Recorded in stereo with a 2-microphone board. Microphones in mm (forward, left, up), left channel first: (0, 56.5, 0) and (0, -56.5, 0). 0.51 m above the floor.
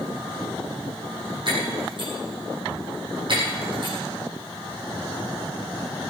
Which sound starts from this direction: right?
Breaking glass, at 1.5 s.